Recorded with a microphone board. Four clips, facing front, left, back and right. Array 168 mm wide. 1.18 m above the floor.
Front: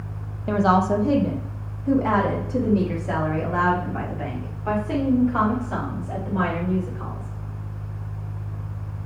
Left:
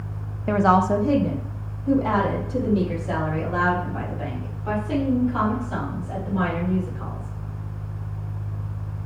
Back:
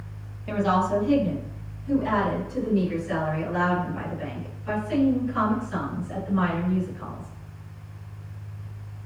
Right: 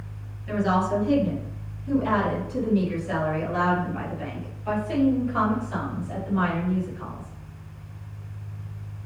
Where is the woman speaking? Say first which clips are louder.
Left 5 dB, front 4 dB; 65° left, 0.9 m; by 7.3 s 15° left, 4.5 m.